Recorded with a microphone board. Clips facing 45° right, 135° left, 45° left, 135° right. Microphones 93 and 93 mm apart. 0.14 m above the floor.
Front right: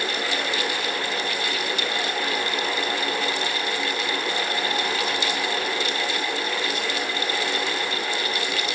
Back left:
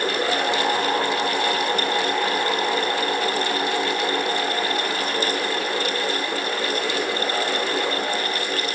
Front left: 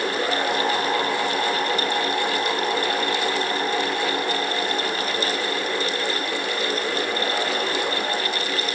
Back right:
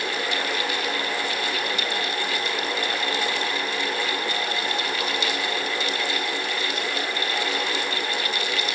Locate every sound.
Only background noise.